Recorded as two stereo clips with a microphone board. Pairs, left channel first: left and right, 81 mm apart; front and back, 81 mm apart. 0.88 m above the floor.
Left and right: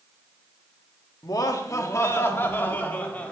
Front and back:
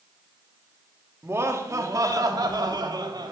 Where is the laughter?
120° left, 1.6 m; by 3.3 s 160° left, 2.5 m.